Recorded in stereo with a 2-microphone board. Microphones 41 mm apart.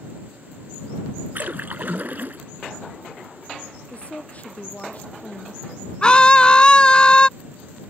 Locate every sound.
1.4 s a splash: 45° right (ahead or behind)
3.9 s a woman speaking: 35° left (ahead or behind)
6.0 s a scream: 25° left (ahead or behind)